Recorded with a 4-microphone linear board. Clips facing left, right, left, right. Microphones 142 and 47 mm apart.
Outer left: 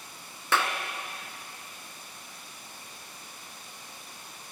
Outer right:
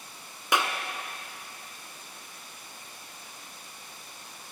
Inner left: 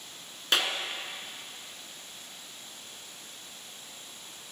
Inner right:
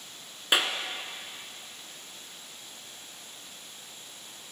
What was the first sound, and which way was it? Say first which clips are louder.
A clap: even, inner right 2 dB; 15° right (ahead or behind).